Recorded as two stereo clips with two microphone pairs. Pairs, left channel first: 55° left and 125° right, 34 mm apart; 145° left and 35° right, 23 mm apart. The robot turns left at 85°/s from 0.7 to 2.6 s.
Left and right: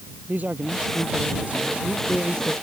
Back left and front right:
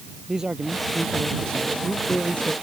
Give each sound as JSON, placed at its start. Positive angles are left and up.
{"t": 0.3, "sound": "a man speaking", "azimuth_deg": -95}